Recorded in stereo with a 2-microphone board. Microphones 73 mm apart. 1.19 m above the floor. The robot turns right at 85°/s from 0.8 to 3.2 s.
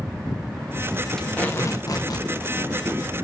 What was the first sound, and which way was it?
Tape being pulled, 5° left.